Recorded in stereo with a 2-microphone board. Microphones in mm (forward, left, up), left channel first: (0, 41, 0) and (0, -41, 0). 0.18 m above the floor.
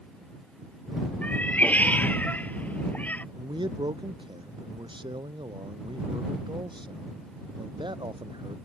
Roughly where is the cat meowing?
Left.